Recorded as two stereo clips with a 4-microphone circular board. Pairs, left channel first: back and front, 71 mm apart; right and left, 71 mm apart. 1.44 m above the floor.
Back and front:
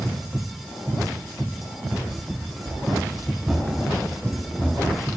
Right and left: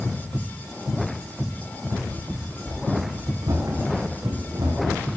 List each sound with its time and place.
2.1 s running footsteps: 75° left, 3.5 m; by 5.2 s 110° left, 3 m